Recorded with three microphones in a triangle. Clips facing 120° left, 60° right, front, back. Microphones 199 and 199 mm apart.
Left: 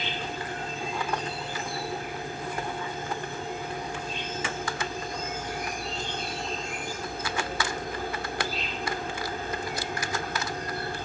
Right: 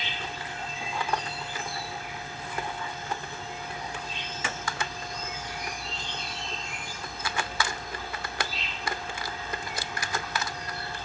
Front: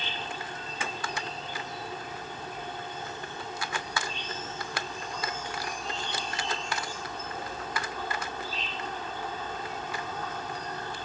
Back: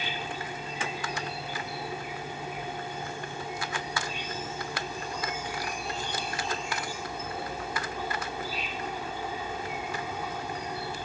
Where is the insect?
105° left.